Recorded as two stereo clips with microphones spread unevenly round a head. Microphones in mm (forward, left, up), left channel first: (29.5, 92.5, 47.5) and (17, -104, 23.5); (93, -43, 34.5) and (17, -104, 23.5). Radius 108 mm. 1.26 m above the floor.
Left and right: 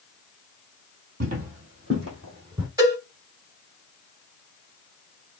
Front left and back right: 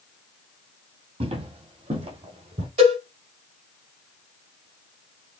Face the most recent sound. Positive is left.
turn(degrees=-170)